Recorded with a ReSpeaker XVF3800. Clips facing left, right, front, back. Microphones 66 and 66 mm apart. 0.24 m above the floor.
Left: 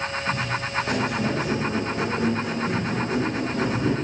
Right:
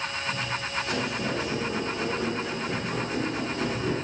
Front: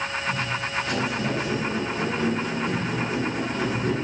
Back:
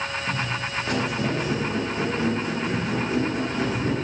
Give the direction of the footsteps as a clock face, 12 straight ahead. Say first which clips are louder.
Left 5 dB, even; 8 o'clock.